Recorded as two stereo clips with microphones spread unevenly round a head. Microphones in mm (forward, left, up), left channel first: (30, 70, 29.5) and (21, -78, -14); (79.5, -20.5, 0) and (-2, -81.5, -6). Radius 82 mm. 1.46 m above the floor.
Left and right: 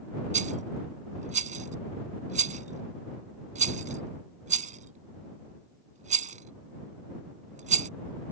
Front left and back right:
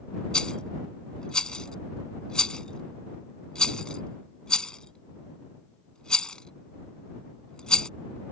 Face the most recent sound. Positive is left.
turn(degrees=-45)